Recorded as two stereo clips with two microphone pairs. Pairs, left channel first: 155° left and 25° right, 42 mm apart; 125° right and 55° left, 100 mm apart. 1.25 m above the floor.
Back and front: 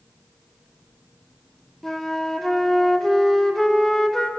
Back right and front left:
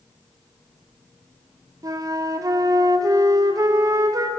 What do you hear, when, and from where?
1.8 s a flute: 75° left, 0.6 m